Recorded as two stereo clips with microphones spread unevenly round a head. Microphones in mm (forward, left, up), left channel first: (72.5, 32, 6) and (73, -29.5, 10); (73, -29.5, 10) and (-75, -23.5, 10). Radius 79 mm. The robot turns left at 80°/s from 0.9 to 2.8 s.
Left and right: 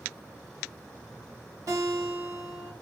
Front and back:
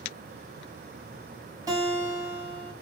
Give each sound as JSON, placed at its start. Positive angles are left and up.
{"t": 1.7, "sound": "a guitar", "azimuth_deg": -120, "distance_m": 2.0}